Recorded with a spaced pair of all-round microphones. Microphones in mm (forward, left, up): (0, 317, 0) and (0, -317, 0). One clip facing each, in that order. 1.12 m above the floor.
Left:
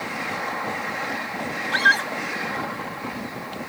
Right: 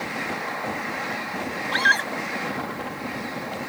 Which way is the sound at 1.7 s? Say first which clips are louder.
Even; 35° left (ahead or behind).